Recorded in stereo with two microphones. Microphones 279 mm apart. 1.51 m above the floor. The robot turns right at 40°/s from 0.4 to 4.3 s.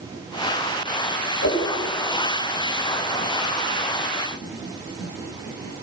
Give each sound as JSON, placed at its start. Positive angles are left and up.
{"t": 1.4, "sound": "a whoosh", "side_deg": 60, "distance_m": 5.5}